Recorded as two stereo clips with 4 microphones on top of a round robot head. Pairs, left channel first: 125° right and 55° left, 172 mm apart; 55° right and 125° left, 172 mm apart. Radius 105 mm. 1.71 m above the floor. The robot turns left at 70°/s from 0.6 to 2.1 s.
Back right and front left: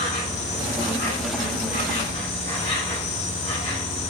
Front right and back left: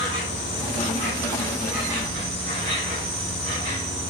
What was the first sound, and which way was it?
An insect, 75° right.